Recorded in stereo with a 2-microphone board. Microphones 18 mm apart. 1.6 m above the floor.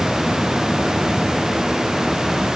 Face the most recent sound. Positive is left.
No sound to turn to.